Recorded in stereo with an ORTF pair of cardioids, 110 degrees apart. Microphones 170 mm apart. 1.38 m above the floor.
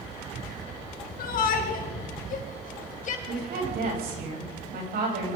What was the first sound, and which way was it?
A shout, 60° left.